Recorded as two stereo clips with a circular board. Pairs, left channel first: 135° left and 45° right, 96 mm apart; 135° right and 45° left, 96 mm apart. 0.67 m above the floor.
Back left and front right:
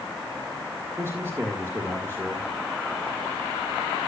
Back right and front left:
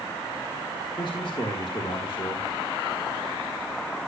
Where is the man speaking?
105° right, 1.6 m.